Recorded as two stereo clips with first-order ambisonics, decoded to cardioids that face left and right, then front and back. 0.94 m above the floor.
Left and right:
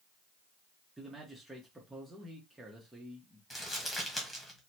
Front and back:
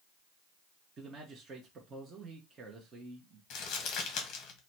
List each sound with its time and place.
1.0 s a man speaking: 165° right, 0.9 m
3.5 s crumpling: 15° left, 1.1 m